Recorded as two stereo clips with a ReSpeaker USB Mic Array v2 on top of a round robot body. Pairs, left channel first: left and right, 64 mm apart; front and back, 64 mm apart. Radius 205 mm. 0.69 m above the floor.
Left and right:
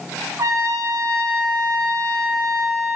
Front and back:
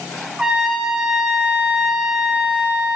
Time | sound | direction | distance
0.4 | a trumpet | 105° right | 1.4 m